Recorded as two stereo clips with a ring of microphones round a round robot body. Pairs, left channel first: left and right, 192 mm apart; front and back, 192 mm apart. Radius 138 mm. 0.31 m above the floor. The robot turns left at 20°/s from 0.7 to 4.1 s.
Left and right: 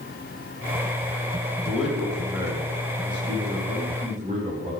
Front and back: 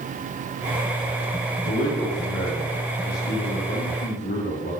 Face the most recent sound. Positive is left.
turn(degrees=-45)